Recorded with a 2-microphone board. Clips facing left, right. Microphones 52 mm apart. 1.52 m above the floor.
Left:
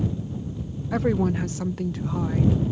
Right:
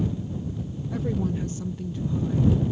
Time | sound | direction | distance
0.9 | a woman speaking | 80° left | ?